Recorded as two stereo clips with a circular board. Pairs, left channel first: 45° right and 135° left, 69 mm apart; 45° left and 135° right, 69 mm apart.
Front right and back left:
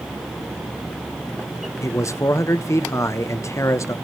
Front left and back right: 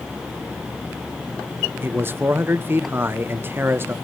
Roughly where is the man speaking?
Right.